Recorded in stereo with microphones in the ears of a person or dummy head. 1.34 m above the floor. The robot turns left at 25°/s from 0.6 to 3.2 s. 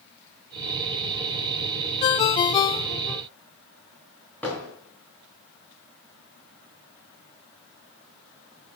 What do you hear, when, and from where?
2.0 s a ringtone: 25° left (ahead or behind), 0.5 m; by 3.2 s 15° left (ahead or behind), 0.5 m
4.4 s hammering: 10° left (ahead or behind), 5 m